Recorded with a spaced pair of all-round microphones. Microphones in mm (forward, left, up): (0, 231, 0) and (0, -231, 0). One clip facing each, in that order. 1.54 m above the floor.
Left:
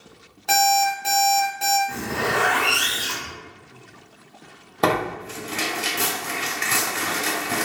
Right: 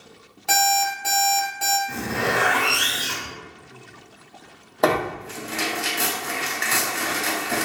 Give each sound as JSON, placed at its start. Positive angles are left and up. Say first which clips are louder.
{"t": 0.5, "sound": "an alarm clock", "louder": "left 3 dB", "side_deg": -25, "distance_m": 0.9}
{"t": 1.9, "sound": "a zipper", "louder": "right 4 dB", "side_deg": 0, "distance_m": 0.8}
{"t": 4.8, "sound": "tearing paper", "louder": "right 1 dB", "side_deg": 25, "distance_m": 0.6}